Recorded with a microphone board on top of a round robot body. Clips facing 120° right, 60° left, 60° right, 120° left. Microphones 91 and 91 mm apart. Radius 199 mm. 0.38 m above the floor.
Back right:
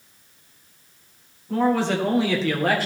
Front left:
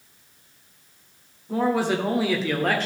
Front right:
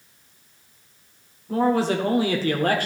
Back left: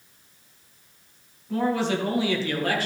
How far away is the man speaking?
About 2 m.